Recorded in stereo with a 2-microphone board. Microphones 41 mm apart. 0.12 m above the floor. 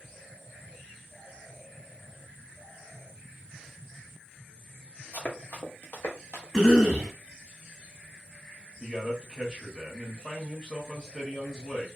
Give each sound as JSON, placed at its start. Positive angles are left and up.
{"t": 5.1, "sound": "running footsteps", "side_deg": 45, "distance_m": 1.4}
{"t": 6.5, "sound": "a cough", "side_deg": 15, "distance_m": 1.7}
{"t": 8.8, "sound": "a man speaking", "side_deg": 5, "distance_m": 1.4}